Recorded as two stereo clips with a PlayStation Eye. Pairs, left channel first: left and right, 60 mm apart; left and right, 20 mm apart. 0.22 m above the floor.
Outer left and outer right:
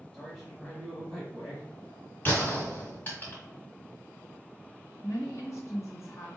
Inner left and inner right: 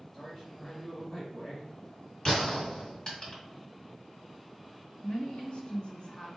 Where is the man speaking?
5° left (ahead or behind), 1.1 m.